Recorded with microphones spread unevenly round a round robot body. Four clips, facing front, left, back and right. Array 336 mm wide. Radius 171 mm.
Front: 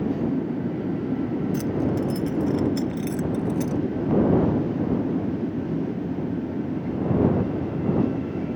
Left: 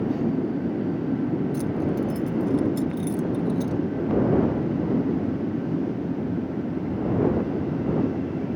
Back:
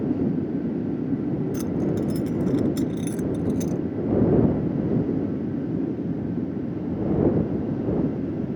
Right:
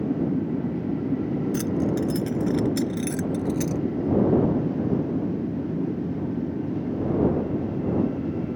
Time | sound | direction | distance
1.5 | keys jangling | 105° right | ?